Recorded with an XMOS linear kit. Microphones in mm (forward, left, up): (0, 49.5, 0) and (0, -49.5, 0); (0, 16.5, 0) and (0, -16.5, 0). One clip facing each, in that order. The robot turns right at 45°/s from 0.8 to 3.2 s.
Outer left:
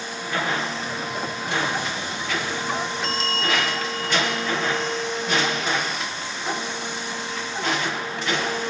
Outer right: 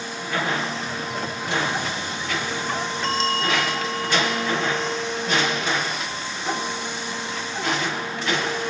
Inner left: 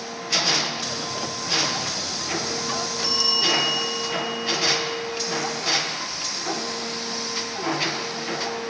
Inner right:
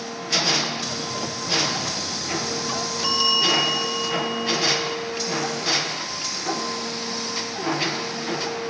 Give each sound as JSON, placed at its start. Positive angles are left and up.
{"t": 3.0, "sound": "a bell", "side_deg": -45, "distance_m": 2.5}